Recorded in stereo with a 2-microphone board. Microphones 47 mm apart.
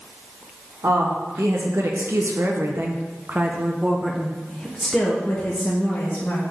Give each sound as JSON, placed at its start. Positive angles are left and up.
{"t": 0.8, "sound": "a woman speaking", "side_deg": -80, "distance_m": 1.7}